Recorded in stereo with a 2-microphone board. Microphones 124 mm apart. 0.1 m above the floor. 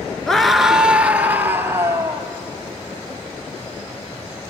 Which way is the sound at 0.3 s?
5° left (ahead or behind).